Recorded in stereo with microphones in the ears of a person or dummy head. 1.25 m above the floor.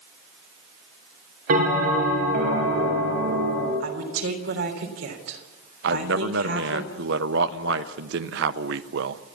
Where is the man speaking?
70° right (ahead or behind), 0.9 m.